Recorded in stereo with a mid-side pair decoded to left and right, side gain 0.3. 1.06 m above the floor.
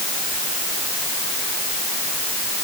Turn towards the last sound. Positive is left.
No sound to turn to.